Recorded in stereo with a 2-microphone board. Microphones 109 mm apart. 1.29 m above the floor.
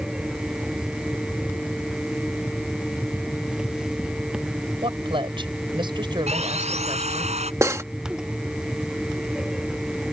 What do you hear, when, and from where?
4.8 s a woman speaking: 50° right (ahead or behind); by 7.3 s 40° right (ahead or behind)
6.3 s sawing: 85° right
7.6 s cutlery clinking: 25° right (ahead or behind)